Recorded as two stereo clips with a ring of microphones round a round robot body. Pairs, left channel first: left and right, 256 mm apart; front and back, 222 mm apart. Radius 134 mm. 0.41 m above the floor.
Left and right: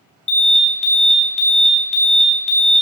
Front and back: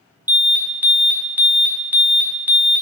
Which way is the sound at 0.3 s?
105° left.